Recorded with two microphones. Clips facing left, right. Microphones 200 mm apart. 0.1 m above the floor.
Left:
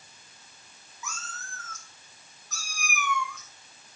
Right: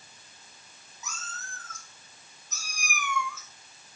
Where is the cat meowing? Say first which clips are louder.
Left 2 dB; 40° right (ahead or behind), 3 m; by 4.0 s 10° left (ahead or behind), 1.8 m.